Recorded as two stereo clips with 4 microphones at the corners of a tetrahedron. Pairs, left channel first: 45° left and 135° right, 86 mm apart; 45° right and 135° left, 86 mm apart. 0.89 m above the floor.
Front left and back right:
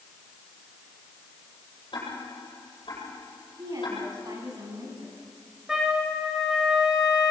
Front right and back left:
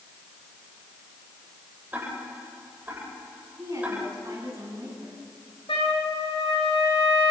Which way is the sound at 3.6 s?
175° right.